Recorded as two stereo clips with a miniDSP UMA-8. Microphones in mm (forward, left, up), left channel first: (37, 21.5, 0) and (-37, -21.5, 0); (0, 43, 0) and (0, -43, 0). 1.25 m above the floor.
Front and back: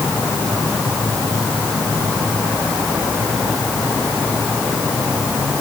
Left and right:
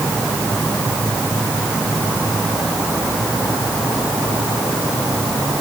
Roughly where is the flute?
No flute in this recording.